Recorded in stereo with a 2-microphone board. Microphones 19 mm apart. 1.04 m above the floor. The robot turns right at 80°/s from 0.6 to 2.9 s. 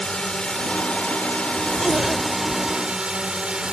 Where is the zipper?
55° right (ahead or behind); by 2.8 s 40° left (ahead or behind).